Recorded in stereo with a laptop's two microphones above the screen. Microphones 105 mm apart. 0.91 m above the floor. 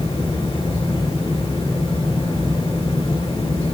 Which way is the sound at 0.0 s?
60° left (ahead or behind).